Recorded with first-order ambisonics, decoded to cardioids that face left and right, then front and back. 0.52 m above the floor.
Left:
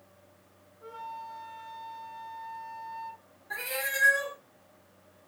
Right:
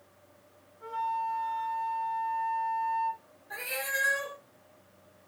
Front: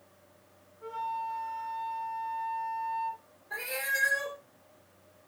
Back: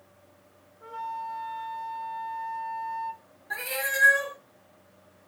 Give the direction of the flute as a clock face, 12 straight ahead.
4 o'clock.